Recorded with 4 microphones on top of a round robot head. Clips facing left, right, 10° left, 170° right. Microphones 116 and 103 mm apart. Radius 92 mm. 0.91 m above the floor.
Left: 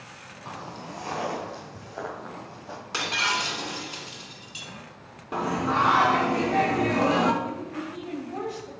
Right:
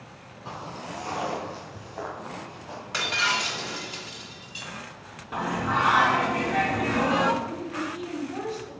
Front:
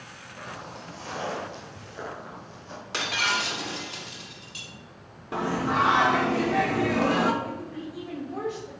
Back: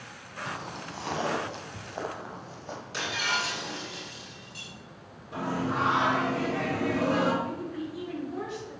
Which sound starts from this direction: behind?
Footsteps, at 0.5 s.